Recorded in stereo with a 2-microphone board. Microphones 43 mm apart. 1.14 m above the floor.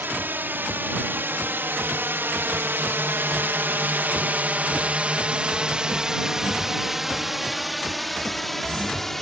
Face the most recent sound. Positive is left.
turn(degrees=5)  # may be behind; listen again after turning